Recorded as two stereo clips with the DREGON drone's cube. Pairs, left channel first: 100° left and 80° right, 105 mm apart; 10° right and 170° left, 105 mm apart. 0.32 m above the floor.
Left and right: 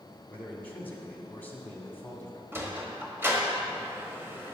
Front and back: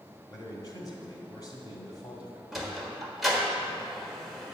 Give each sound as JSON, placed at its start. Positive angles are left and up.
{"t": 0.3, "sound": "a man speaking", "azimuth_deg": 30, "distance_m": 1.8}
{"t": 2.5, "sound": "a sliding door", "azimuth_deg": -105, "distance_m": 1.4}